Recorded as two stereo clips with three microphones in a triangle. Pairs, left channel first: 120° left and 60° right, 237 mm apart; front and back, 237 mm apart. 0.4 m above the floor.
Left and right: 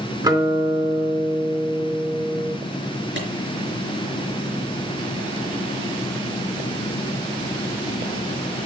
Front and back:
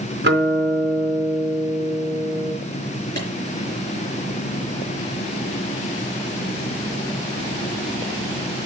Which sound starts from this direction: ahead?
A clap, at 3.2 s.